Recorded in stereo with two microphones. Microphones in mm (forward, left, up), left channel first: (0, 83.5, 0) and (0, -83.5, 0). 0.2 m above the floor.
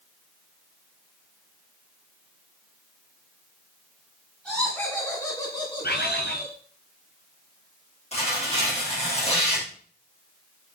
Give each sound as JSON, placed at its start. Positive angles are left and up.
{"t": 4.5, "sound": "laughter", "side_deg": 5, "distance_m": 2.5}
{"t": 5.8, "sound": "a bird", "side_deg": 75, "distance_m": 1.7}
{"t": 8.1, "sound": "tearing paper", "side_deg": 40, "distance_m": 5.0}